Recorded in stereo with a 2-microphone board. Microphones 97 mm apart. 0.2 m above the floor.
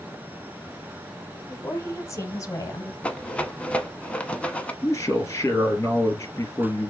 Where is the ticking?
I don't hear ticking.